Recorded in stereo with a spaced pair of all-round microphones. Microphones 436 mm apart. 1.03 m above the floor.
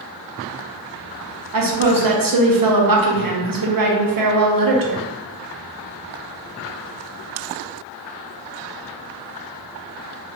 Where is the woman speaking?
50° right (ahead or behind), 0.5 m.